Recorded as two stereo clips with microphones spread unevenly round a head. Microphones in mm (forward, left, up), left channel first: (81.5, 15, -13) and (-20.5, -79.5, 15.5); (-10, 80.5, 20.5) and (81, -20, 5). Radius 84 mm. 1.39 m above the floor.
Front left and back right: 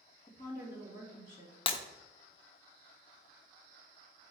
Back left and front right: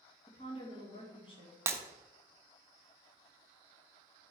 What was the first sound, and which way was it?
A woman speaking, 85° left.